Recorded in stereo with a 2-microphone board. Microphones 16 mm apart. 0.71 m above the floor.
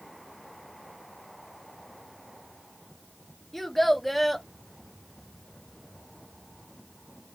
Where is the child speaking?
10° left (ahead or behind), 0.8 m.